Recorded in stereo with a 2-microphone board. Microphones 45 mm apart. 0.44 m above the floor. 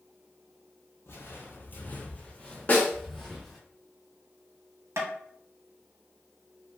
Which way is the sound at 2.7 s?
40° left (ahead or behind).